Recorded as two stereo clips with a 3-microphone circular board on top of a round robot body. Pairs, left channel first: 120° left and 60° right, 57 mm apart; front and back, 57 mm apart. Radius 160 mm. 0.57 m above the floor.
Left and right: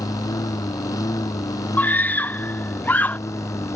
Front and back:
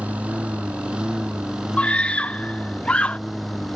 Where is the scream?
65° left.